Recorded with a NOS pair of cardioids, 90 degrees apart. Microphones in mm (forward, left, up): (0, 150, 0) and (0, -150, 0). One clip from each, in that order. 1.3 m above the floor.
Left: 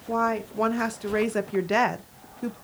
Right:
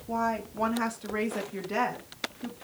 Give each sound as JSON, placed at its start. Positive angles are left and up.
{"t": 0.1, "sound": "a woman speaking", "azimuth_deg": 20, "distance_m": 1.8}